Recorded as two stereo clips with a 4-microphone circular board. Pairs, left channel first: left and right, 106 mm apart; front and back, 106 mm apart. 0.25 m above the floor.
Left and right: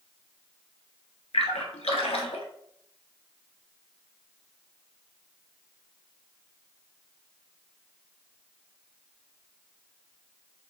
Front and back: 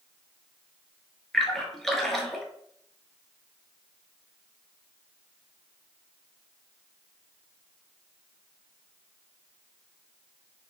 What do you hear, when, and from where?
1.3 s a splash: 85° left, 0.7 m